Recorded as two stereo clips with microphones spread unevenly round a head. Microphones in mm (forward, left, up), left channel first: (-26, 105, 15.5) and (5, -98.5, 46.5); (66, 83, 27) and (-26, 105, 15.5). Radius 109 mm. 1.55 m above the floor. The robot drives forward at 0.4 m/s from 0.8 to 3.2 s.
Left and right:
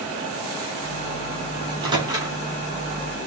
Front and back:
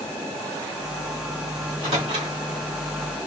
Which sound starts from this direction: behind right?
A microwave, at 1.6 s.